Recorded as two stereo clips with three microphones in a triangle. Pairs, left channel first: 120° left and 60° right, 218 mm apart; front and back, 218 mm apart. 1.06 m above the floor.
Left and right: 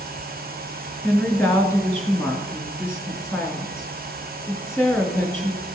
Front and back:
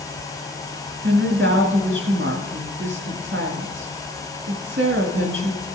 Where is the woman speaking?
160° right, 2.0 m.